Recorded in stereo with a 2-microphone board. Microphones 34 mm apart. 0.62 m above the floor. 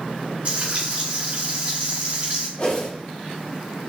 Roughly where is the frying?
Right.